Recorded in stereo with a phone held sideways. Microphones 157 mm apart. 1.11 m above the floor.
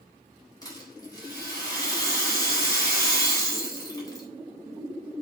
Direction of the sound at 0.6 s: 25° left (ahead or behind).